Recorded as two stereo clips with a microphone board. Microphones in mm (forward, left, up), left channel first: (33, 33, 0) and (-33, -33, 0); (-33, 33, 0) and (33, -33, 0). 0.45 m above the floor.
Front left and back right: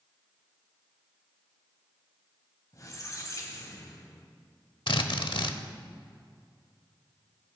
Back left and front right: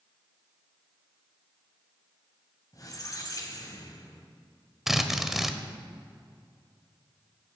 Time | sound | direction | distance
2.7 | a squeak | 90° left | 2.0 m
4.9 | a drill | 40° left | 0.9 m